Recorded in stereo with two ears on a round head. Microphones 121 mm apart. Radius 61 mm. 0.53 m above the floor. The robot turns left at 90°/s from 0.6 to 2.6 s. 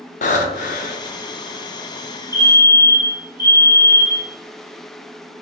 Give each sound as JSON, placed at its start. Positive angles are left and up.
{"t": 0.2, "sound": "breathing", "azimuth_deg": 95, "distance_m": 0.5}
{"t": 2.3, "sound": "a fire alarm", "side_deg": -20, "distance_m": 1.6}